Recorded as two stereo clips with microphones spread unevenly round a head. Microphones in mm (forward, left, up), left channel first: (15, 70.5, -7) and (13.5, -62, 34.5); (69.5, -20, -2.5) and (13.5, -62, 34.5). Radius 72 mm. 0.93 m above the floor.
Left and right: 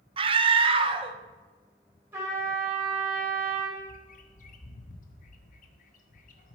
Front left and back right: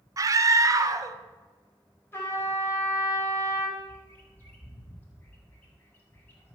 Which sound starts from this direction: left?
A bird, at 3.8 s.